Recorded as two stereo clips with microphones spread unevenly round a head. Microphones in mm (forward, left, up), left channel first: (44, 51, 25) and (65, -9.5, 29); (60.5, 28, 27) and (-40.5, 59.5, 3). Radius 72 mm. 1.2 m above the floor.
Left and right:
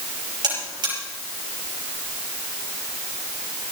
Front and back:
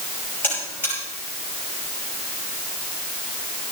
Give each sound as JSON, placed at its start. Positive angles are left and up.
{"t": 0.4, "sound": "a buzzer", "azimuth_deg": -95, "distance_m": 5.0}